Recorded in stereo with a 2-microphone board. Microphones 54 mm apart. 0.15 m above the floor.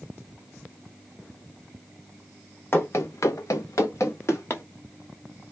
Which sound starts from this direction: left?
Running footsteps, at 2.7 s.